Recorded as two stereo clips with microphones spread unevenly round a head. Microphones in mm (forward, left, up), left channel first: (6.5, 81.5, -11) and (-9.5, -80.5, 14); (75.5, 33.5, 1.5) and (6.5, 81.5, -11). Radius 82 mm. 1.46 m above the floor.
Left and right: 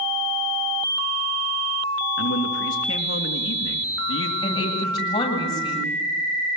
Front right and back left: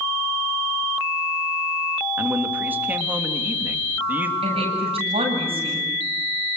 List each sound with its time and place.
2.2 s a man speaking: 75° left, 3 m
4.4 s a woman speaking: 150° left, 8 m